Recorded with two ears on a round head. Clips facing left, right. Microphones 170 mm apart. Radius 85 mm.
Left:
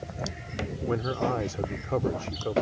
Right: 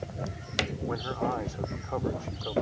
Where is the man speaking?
45° left (ahead or behind).